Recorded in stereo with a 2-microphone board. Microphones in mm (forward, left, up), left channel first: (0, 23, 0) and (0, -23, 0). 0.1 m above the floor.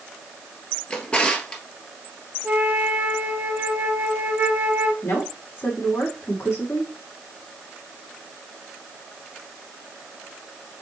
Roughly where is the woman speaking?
Left.